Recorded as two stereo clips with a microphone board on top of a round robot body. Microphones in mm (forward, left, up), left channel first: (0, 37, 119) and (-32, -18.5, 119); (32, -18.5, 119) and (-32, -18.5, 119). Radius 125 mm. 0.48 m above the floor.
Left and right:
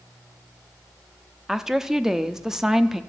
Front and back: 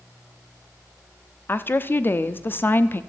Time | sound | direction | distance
1.5 | a woman speaking | 40° right | 0.9 m